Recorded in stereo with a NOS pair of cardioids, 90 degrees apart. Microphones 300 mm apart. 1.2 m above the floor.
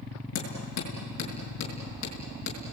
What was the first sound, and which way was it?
Hammering, 60° left.